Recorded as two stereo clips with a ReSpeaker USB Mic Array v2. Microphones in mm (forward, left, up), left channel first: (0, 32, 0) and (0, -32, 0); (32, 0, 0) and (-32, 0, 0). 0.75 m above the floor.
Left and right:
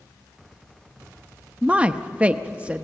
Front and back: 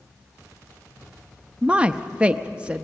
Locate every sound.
1.6 s a woman speaking: 135° right, 0.8 m